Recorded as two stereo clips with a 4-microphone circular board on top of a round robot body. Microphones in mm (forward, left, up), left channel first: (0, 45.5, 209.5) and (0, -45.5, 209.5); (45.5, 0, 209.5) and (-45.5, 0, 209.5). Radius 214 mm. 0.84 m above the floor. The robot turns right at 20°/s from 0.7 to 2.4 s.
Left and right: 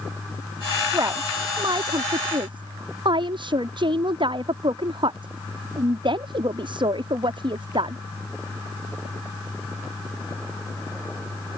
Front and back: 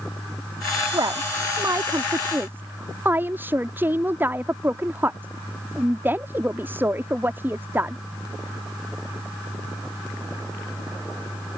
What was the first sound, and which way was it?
A woman speaking, 140° right.